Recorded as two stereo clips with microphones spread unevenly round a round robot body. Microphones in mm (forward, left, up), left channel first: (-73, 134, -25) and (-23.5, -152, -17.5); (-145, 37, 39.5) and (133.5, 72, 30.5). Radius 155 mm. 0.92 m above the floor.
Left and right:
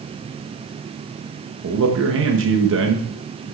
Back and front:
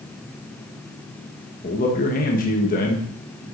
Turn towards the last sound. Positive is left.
turn(degrees=-115)